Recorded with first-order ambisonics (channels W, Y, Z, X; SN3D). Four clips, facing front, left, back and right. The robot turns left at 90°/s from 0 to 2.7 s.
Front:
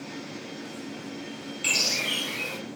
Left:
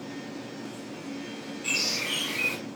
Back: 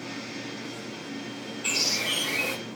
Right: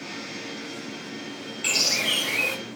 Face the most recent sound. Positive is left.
turn(degrees=-145)